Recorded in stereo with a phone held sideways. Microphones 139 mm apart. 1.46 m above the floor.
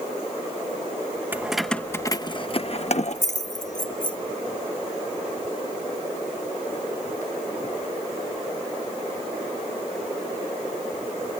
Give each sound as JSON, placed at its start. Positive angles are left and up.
{"t": 1.3, "sound": "keys jangling", "side_deg": -15}